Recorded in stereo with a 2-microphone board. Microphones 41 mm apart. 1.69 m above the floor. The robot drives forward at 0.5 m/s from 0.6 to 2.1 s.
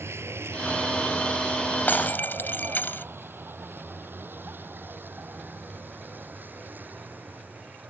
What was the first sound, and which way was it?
A vehicle, 85° right.